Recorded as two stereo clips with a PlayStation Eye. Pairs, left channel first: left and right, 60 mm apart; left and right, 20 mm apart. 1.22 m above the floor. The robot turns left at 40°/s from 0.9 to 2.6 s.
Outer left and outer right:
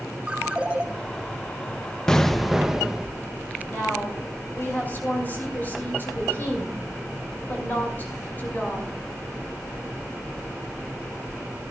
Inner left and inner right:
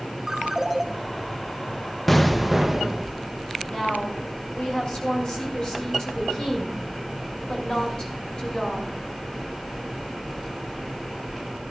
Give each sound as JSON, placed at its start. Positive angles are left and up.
{"t": 0.3, "sound": "a ringtone", "side_deg": -20, "distance_m": 1.8}
{"t": 2.1, "sound": "an explosion", "side_deg": 10, "distance_m": 0.6}
{"t": 3.7, "sound": "a woman speaking", "side_deg": 30, "distance_m": 6.0}